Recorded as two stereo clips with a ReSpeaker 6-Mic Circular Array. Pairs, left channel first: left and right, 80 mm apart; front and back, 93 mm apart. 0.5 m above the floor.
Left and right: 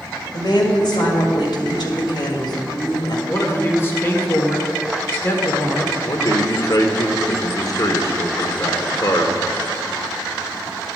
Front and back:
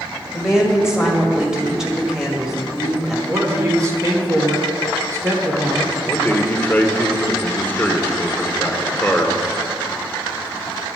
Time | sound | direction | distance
0.3 | a woman speaking | 100° left | 1.9 m
3.3 | a man speaking | 135° left | 1.6 m
6.0 | a man speaking | 65° left | 1.0 m